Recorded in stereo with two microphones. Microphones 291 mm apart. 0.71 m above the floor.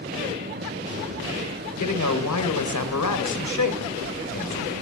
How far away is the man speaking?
About 2.5 m.